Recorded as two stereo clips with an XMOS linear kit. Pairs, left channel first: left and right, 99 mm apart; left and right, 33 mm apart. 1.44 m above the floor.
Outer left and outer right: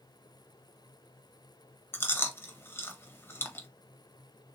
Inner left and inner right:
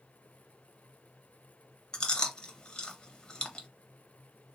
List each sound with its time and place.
1.9 s chewing: 25° left (ahead or behind), 0.8 m